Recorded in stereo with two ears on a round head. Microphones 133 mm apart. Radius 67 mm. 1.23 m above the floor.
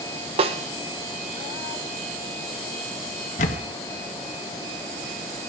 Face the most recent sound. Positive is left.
turn(degrees=45)  # may be behind; listen again after turning